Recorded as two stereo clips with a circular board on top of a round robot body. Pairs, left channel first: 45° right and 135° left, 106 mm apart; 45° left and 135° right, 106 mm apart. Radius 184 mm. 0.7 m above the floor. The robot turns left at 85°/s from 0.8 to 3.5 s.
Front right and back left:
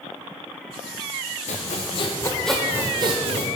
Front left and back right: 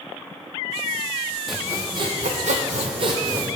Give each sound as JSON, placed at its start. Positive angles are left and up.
{"t": 1.5, "sound": "sawing", "azimuth_deg": -45, "distance_m": 0.8}